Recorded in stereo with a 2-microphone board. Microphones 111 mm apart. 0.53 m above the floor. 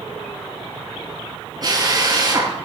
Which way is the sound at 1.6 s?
35° right (ahead or behind).